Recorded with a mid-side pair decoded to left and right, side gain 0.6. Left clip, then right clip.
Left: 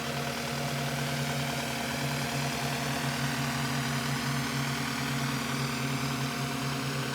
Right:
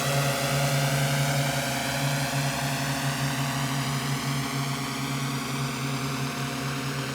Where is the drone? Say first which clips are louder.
Right 7 dB; 55° right; by 7.2 s 15° right.